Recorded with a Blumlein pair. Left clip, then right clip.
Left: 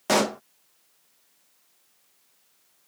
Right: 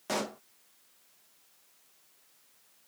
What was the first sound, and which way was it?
A pop, 30° left.